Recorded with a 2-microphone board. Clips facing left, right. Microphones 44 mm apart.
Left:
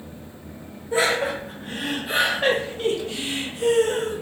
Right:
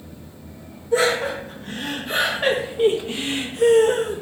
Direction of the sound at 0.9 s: 25° left (ahead or behind).